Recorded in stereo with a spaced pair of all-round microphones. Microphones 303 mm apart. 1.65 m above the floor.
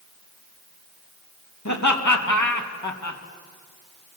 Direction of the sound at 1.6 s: 65° left (ahead or behind).